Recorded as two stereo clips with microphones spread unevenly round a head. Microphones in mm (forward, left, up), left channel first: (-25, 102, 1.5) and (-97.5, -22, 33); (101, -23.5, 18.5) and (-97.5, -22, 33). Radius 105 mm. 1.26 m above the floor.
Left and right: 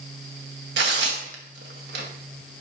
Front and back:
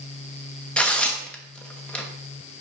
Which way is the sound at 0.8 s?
85° right.